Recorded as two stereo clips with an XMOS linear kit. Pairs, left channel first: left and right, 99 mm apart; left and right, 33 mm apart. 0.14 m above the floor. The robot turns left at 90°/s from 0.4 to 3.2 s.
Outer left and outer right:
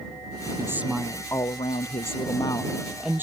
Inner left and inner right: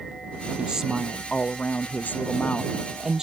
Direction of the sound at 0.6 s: 145° right.